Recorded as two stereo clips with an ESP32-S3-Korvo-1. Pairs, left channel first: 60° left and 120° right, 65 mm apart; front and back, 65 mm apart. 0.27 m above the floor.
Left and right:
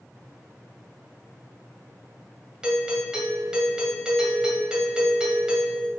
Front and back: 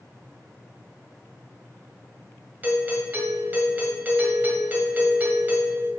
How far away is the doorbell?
About 1.5 m.